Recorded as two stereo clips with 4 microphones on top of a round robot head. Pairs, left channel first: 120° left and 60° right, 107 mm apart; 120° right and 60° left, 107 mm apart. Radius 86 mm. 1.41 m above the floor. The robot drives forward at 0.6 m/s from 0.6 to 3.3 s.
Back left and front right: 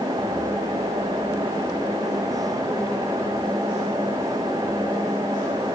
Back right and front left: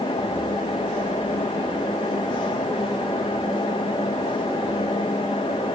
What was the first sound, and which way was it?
Only background noise.